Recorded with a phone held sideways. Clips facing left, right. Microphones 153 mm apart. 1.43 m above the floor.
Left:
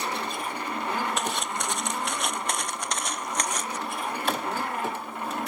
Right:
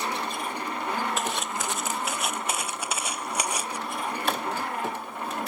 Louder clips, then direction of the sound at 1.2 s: Even; centre (ahead or behind).